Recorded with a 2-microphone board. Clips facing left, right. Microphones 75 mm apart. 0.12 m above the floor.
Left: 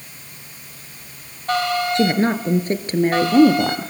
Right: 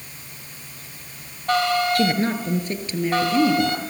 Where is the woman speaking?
25° left (ahead or behind), 1.8 m; by 3.9 s 60° left (ahead or behind), 2.5 m.